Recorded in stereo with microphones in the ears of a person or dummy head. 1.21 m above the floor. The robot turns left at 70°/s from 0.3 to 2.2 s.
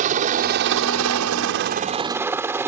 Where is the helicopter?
45° right (ahead or behind); by 2.7 s 5° right (ahead or behind).